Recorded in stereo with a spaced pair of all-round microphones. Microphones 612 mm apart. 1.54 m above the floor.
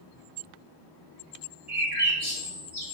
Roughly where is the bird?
Centre.